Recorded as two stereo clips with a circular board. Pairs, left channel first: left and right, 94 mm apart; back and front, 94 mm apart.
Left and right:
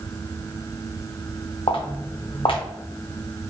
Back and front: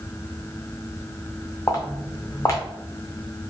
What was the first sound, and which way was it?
Footsteps, 120° left.